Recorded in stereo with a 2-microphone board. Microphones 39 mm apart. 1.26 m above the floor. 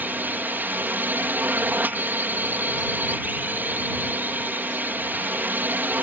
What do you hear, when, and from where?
0.0 s a drone: 60° right (ahead or behind)